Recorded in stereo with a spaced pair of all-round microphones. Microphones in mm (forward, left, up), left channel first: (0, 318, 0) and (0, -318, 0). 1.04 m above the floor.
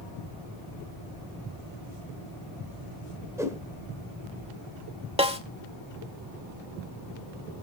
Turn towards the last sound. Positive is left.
turn(degrees=-10)  # may be behind; listen again after turning